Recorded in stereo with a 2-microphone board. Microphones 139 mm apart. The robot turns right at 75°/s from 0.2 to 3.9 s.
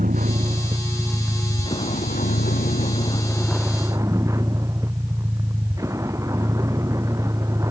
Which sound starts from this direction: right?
A vehicle, at 0.0 s.